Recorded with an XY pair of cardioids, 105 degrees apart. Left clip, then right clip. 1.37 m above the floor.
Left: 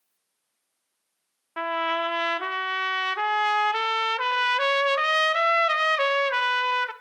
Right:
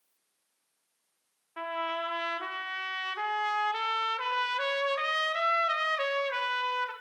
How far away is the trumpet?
About 0.8 m.